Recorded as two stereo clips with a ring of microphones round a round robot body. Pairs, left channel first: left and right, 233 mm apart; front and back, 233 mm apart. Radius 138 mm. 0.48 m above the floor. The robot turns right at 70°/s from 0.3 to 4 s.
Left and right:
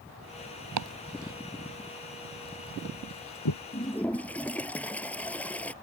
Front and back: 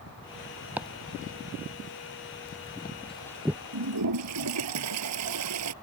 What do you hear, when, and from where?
0.8 s chopping: 95° right; by 3.6 s 105° left
3.7 s a toilet flushing: 155° left; by 5.7 s 175° left